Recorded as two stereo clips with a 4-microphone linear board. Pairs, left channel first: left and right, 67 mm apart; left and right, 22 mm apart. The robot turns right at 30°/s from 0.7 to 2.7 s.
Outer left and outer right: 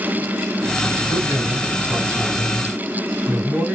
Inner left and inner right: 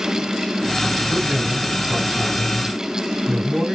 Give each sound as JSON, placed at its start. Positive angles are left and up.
{"t": 1.1, "sound": "a man speaking", "azimuth_deg": -90, "distance_m": 1.5}